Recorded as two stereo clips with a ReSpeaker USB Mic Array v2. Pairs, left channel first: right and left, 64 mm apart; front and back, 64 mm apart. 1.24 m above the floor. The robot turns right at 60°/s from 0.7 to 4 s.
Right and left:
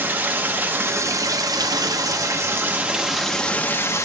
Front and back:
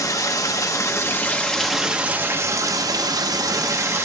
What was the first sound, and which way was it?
Running water, 30° left.